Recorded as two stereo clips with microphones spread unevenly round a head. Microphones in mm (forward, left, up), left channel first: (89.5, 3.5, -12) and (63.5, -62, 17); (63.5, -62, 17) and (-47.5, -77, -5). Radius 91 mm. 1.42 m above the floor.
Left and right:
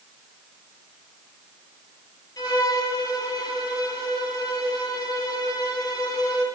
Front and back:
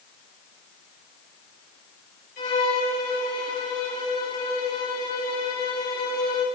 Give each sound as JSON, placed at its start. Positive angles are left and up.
{"t": 2.4, "sound": "a violin", "azimuth_deg": 45, "distance_m": 3.0}